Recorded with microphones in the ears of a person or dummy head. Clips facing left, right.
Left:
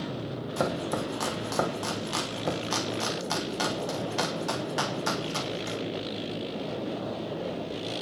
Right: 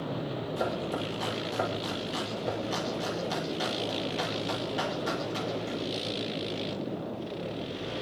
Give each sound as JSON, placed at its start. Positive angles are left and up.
{"t": 0.6, "sound": "chopping", "side_deg": 70, "distance_m": 3.0}